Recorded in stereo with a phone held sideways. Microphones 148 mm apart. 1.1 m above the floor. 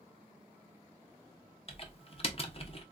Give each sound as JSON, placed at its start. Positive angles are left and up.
{"t": 1.7, "sound": "typing on a keyboard", "side_deg": 40, "distance_m": 0.6}